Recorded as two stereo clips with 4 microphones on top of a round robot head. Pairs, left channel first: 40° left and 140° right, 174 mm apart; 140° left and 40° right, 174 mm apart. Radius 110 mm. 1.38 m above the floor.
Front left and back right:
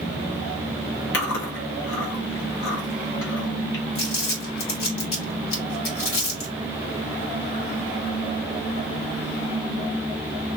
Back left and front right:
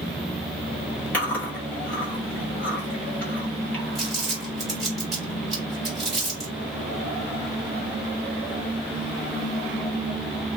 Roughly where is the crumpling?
Ahead left.